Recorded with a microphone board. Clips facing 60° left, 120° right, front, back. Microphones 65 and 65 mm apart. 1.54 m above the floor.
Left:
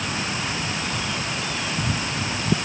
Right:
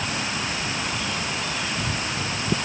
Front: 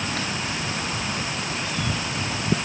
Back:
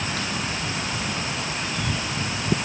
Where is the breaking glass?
No breaking glass in this recording.